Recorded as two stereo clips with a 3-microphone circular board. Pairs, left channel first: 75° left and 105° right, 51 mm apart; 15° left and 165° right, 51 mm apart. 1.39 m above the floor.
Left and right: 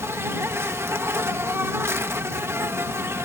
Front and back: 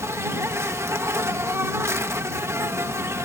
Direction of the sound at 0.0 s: 135° right.